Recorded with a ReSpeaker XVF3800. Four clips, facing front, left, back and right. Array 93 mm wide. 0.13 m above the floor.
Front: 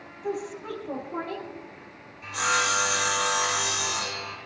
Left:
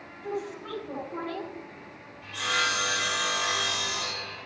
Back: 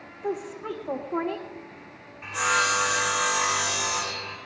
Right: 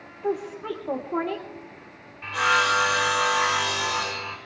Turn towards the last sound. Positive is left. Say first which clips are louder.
# right 7 dB, back 2 dB
turn(degrees=-120)